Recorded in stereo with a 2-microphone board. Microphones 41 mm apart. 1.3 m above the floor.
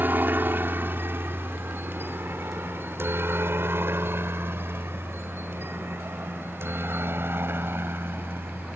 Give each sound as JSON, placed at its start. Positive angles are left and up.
{"t": 0.0, "sound": "a helicopter", "side_deg": -50}